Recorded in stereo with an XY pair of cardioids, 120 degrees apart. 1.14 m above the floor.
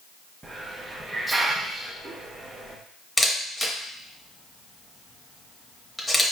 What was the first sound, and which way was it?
A hiss, 20° right.